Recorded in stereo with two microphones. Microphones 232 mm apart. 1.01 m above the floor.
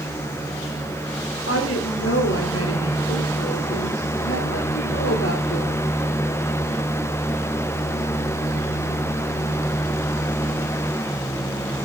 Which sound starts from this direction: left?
A woman speaking, at 1.5 s.